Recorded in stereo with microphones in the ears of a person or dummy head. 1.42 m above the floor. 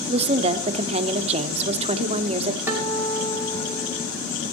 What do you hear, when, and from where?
0.1 s a woman speaking: 35° right (ahead or behind), 0.7 m
2.7 s a guitar: 10° right (ahead or behind), 2.5 m